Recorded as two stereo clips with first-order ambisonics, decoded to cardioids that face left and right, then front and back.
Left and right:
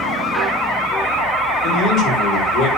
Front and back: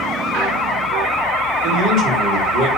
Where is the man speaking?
135° left, 5 m.